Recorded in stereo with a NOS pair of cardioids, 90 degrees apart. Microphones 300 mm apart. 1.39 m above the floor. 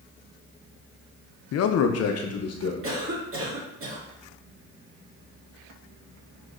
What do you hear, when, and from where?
1.5 s a man speaking: 55° left, 0.5 m
2.8 s a cough: 45° right, 2.5 m